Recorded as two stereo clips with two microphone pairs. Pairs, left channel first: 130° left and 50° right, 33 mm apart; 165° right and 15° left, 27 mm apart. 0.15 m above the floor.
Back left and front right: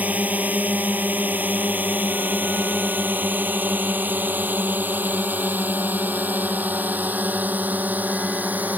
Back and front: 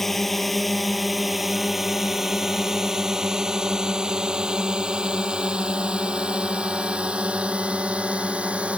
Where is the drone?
80° right; by 8.8 s 25° right.